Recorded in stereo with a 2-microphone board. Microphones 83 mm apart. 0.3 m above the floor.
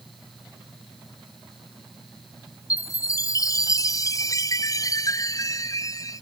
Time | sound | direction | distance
2.7 | a chime | 40° left (ahead or behind) | ?